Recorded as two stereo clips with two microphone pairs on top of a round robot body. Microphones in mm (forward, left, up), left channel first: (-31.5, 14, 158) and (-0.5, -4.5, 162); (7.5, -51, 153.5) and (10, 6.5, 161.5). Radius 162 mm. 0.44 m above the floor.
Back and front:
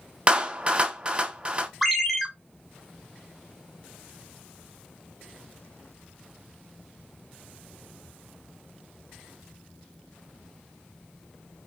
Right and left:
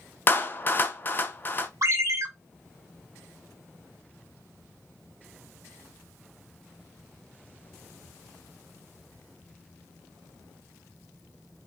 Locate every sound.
0.3 s a clap: 90° right, 0.7 m
1.8 s a ringtone: 55° left, 0.9 m